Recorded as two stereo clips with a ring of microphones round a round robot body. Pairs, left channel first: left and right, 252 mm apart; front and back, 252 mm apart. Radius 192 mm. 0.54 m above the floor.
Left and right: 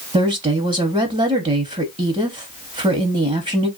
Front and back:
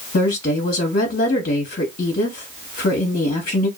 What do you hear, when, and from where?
0.1 s a woman speaking: 40° right, 0.9 m